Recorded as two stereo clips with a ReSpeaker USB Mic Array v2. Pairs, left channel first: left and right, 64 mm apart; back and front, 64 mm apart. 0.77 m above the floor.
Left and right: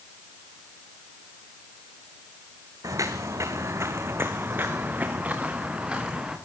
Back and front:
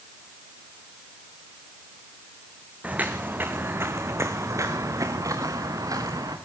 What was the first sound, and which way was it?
Footsteps, 65° right.